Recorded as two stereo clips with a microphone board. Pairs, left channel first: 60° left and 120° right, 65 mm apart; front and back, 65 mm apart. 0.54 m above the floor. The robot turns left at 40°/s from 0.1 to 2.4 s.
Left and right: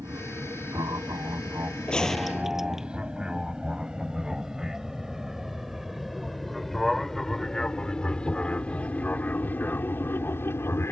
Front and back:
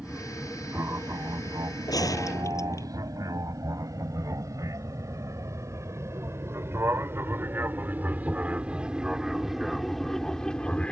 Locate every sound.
0.0 s an aircraft: 100° right; by 10.9 s 65° left
1.9 s a gunshot: 15° right; by 2.9 s 35° right